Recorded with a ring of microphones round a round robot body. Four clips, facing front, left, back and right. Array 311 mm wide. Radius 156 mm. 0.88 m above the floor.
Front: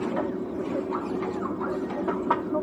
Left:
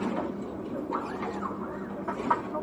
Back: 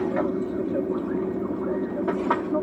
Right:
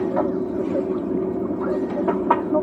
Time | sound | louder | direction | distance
0.0 | an aircraft | right 10 dB, back 3 dB | 110° right | ?